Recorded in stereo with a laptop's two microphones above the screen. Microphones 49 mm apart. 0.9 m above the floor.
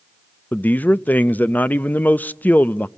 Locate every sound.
0.5 s a man speaking: 35° left (ahead or behind), 0.6 m